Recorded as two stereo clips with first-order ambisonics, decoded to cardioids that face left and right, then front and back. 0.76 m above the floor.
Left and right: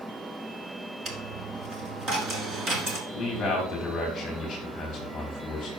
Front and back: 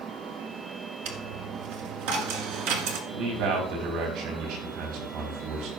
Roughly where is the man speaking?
Behind left.